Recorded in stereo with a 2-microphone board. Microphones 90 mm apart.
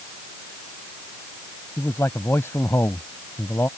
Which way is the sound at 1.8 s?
30° left (ahead or behind).